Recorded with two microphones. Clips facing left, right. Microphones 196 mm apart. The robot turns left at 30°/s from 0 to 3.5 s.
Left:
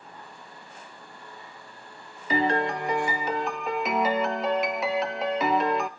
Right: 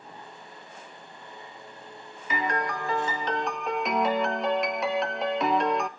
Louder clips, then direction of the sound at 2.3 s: Left 5 dB; 40° left.